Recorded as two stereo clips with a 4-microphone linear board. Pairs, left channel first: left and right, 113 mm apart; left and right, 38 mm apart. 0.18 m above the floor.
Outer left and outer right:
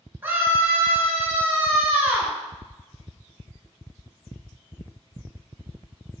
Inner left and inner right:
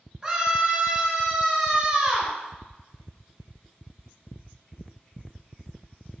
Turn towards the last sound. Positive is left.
turn(degrees=-20)  # may be behind; listen again after turning